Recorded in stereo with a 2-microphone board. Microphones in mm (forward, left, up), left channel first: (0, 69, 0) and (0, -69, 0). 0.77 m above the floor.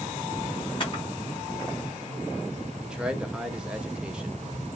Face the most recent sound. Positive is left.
turn(degrees=-5)  # may be behind; listen again after turning